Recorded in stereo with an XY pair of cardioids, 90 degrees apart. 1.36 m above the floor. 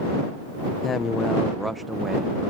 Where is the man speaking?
55° left; by 2.4 s 35° right.